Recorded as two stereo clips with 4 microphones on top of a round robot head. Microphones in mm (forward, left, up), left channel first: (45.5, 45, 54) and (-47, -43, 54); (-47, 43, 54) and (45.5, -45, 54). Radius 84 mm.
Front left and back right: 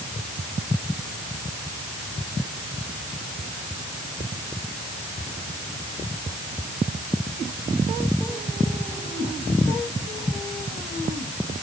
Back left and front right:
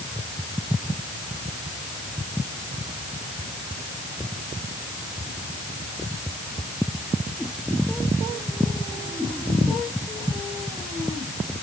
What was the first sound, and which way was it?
Only background noise.